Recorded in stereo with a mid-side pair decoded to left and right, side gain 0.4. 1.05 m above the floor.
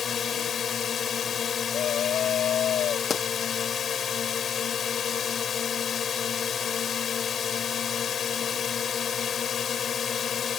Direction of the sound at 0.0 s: 55° left.